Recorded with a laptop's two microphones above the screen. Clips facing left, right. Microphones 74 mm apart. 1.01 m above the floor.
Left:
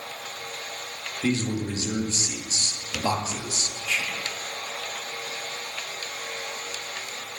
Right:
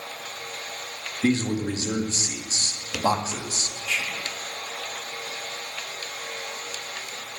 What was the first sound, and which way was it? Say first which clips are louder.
A man speaking: right 3 dB; 45° right (ahead or behind).